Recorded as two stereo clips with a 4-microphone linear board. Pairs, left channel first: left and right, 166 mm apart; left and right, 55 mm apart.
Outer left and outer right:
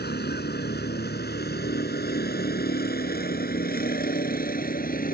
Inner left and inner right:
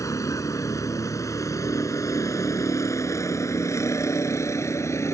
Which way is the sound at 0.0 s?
85° left.